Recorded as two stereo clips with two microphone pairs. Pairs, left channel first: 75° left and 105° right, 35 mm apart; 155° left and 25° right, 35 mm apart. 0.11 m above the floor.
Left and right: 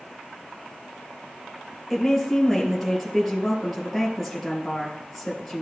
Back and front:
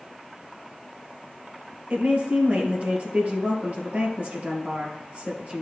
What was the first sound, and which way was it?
A woman speaking, 10° right.